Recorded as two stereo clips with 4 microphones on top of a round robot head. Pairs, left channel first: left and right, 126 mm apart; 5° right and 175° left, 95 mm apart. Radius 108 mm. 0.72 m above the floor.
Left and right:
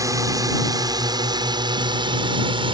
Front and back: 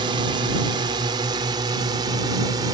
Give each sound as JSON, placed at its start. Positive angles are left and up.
{"t": 0.0, "sound": "a drone", "azimuth_deg": -150}